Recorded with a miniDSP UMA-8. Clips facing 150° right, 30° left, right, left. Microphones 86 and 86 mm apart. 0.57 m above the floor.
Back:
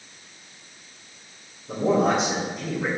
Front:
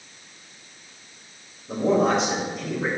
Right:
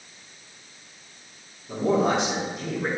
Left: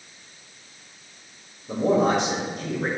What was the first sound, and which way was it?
A man speaking, 125° left.